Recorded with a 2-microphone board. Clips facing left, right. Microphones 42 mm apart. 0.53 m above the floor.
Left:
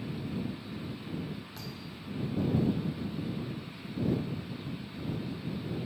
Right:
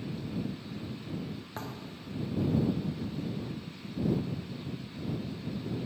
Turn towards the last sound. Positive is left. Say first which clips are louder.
# right 2 dB
turn(degrees=-40)  # may be behind; listen again after turning